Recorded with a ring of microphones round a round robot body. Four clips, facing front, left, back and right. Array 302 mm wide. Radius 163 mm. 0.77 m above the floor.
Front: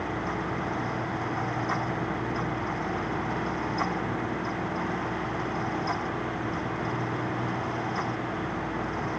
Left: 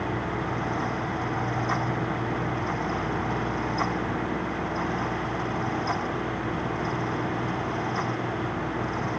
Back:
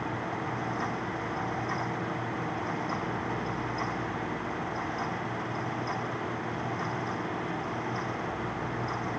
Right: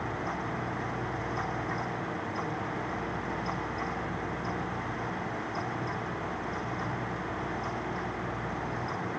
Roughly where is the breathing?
No breathing in this recording.